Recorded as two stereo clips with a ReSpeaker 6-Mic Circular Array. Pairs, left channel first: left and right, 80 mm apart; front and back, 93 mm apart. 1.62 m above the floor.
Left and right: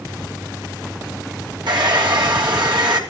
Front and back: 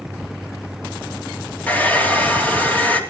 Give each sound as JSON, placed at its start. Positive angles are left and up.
{"t": 1.7, "sound": "a hair dryer", "azimuth_deg": -70, "distance_m": 3.0}